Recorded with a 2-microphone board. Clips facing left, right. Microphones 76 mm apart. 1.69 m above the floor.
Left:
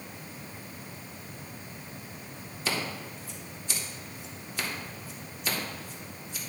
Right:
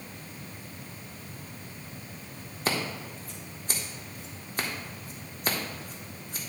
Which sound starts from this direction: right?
Scissors, at 2.6 s.